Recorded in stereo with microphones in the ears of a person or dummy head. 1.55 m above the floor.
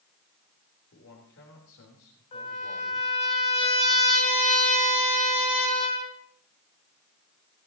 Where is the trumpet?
35° left (ahead or behind), 4 m.